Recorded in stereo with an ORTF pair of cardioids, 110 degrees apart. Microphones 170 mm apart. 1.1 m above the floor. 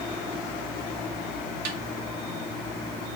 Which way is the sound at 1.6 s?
60° right.